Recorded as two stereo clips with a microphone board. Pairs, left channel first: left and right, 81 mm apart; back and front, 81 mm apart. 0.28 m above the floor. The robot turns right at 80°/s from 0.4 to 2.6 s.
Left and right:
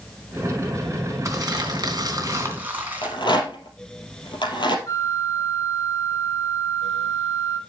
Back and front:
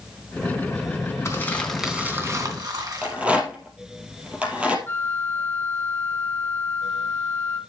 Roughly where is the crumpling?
Behind right.